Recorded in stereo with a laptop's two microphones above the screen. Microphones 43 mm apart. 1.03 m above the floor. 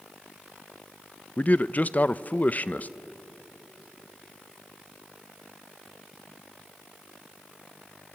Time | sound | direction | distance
1.4 | a man speaking | 40° left (ahead or behind) | 0.5 m